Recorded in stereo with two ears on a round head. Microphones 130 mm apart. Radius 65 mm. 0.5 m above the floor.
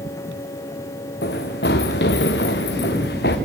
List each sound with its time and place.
1.2 s running footsteps: 75° left (ahead or behind), 3 m; by 3.4 s 80° left, 3.5 m